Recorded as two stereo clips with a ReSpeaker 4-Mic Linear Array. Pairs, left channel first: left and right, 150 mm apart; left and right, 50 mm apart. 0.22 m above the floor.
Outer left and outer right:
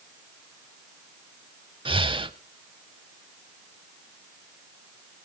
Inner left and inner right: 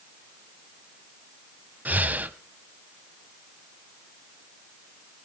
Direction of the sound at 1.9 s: 35° right (ahead or behind).